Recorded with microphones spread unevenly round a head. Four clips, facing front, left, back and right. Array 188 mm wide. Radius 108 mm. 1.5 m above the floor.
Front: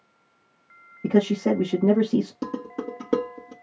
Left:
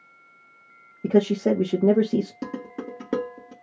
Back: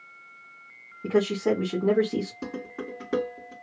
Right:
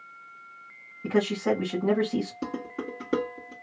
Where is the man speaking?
80° left, 1.6 m.